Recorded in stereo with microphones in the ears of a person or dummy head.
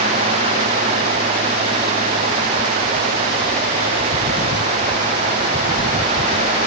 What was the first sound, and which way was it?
Only background noise.